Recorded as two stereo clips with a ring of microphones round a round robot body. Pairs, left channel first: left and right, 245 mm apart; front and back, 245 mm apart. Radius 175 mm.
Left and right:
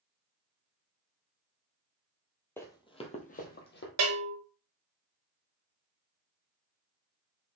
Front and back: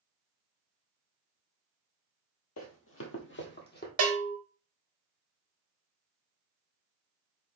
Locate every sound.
2.6 s running footsteps: 10° left, 1.2 m; by 3.9 s 50° left, 1.5 m
4.0 s a bell: 130° right, 0.7 m